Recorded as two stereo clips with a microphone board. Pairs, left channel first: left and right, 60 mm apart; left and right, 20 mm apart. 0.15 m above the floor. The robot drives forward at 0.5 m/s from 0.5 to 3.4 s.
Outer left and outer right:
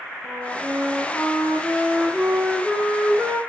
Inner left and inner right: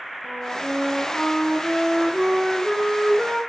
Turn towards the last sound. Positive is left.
turn(degrees=-10)  # may be behind; listen again after turning